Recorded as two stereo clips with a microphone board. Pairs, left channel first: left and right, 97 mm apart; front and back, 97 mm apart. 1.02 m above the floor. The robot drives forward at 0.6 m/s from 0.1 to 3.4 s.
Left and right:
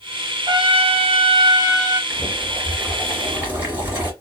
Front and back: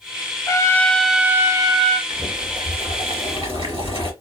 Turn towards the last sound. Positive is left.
turn(degrees=-160)